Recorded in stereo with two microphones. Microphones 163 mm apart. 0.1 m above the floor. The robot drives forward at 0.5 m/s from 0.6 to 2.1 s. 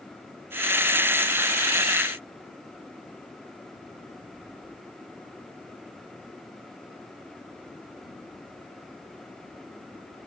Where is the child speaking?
No child speaking in this recording.